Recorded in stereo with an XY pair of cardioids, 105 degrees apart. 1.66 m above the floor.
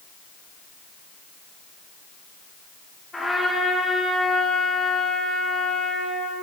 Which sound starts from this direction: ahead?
A trumpet, at 3.1 s.